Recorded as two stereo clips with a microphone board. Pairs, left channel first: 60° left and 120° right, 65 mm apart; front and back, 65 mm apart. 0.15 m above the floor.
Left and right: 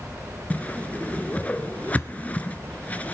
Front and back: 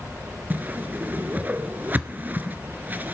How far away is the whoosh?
About 0.6 m.